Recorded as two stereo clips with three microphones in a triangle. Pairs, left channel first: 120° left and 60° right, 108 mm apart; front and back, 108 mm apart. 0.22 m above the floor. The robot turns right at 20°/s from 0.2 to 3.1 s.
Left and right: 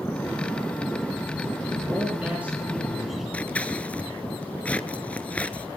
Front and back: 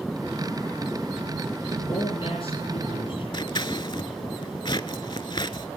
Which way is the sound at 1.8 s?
Straight ahead.